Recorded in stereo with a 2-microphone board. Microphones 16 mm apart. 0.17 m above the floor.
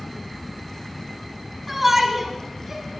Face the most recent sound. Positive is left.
turn(degrees=-30)  # may be behind; listen again after turning